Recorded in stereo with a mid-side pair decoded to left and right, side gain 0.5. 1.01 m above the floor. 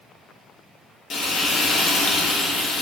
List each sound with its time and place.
1.1 s frying: 50° left, 1.0 m